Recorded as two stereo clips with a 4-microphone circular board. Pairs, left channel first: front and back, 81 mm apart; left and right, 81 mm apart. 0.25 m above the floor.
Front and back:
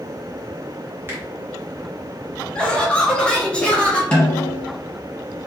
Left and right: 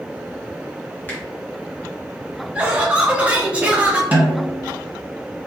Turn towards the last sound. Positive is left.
turn(degrees=-55)